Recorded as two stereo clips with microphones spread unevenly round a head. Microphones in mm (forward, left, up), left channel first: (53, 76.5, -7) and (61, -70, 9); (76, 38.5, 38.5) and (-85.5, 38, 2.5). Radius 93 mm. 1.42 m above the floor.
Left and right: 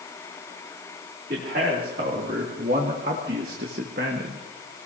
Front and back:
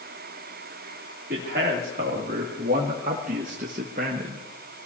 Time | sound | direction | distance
1.3 | a man speaking | 135° right | 3 m